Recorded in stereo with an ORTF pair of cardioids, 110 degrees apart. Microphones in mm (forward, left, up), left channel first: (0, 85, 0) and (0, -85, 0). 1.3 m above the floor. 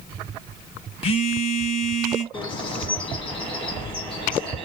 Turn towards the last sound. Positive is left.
turn(degrees=30)